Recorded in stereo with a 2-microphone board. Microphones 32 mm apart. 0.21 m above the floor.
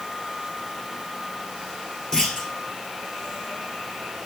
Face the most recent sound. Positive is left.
turn(degrees=20)  # may be behind; listen again after turning